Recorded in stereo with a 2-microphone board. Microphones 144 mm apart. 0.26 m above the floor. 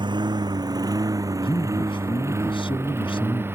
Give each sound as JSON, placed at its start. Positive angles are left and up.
{"t": 0.0, "sound": "a lawn mower", "side_deg": -30}
{"t": 1.4, "sound": "a man speaking", "side_deg": 35}